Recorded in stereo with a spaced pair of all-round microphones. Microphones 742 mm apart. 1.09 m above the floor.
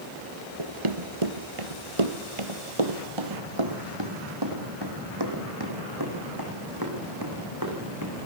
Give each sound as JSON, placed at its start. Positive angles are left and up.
{"t": 0.6, "sound": "running footsteps", "side_deg": -40, "distance_m": 1.4}